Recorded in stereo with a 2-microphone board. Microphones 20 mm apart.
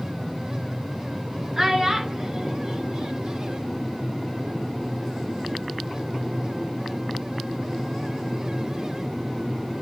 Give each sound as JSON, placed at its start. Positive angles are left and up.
{"t": 1.6, "sound": "a child speaking", "side_deg": -25, "distance_m": 1.8}